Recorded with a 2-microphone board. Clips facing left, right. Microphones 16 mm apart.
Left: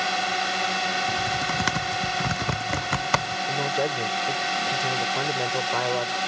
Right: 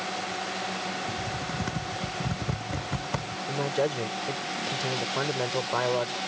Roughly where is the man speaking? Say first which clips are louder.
Left 1 dB; centre.